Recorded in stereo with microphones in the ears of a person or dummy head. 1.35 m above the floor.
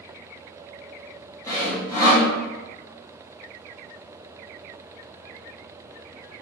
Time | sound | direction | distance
1.5 | sawing | 15° left (ahead or behind) | 1.2 m